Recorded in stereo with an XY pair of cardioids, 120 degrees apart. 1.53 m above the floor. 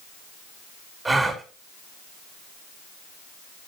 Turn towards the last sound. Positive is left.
turn(degrees=-25)